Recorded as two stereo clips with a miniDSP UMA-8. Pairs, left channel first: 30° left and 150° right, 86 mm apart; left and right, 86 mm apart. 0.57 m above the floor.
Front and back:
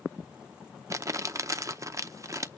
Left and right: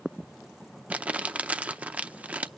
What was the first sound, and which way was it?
Crumpling, 155° right.